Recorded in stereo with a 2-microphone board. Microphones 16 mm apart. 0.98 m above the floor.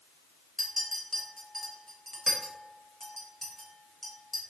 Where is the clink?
5° left (ahead or behind), 1.5 m.